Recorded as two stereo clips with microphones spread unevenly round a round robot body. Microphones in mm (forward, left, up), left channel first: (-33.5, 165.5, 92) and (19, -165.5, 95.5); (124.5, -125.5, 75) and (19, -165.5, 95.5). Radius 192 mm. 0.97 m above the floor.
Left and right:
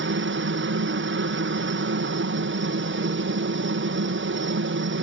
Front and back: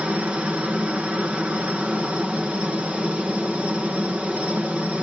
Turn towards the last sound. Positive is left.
turn(degrees=-70)